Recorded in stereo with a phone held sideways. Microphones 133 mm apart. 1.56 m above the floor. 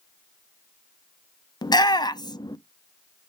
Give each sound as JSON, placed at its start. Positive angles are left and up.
{"t": 1.6, "sound": "a shout", "side_deg": 35, "distance_m": 0.6}